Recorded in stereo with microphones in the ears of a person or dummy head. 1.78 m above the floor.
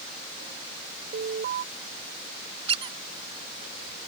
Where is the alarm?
45° right (ahead or behind).